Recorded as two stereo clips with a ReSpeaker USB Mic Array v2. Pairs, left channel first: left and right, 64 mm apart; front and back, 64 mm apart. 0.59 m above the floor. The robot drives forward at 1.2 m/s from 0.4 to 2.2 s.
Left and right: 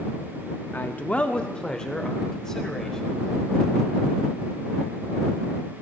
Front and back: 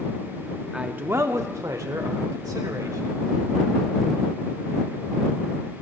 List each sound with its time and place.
0.7 s a man speaking: 105° left, 0.6 m; by 3.3 s 170° left, 2.0 m